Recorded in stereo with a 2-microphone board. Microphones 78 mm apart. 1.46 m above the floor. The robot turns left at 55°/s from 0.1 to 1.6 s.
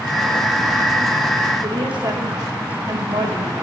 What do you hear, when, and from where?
1.6 s a woman speaking: 80° right, 2 m